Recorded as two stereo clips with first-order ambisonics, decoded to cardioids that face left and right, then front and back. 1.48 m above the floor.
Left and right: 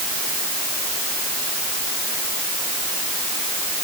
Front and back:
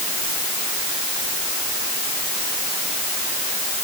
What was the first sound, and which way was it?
Only background noise.